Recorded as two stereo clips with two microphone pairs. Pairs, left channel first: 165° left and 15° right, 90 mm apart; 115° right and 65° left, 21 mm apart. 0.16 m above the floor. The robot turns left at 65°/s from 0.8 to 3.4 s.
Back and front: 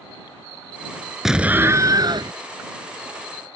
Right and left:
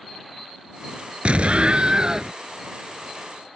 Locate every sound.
1.2 s an explosion: 70° left; by 2.3 s straight ahead